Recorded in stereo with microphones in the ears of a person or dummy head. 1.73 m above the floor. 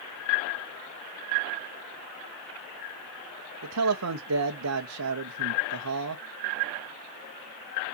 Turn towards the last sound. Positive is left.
turn(degrees=-75)  # may be behind; listen again after turning